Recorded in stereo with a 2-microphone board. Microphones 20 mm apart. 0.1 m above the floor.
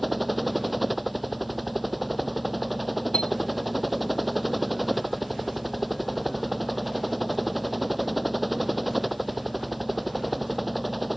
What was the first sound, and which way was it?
A helicopter, centre (ahead or behind).